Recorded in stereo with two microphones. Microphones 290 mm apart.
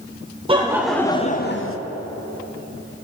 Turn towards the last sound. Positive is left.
turn(degrees=50)  # may be behind; listen again after turning